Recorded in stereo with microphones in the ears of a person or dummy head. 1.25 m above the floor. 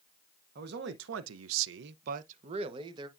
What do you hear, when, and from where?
0.6 s a man speaking: 50° right (ahead or behind), 0.8 m; by 3.1 s 25° right (ahead or behind), 1.0 m